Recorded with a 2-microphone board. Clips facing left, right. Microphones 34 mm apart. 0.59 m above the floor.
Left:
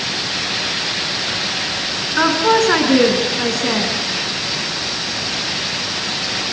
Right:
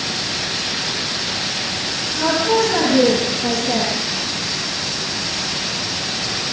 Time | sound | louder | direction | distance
2.2 | a woman speaking | left 3 dB | 60° left (ahead or behind) | 6.5 m